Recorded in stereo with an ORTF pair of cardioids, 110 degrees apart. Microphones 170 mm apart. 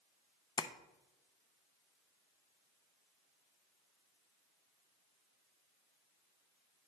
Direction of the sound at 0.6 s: 25° left.